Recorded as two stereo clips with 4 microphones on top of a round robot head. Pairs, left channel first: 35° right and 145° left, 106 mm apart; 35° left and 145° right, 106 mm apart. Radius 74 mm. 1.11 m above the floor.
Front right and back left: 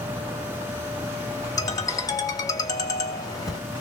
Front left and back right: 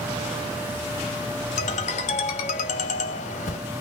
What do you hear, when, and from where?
1.6 s a ringtone: 20° left, 1.2 m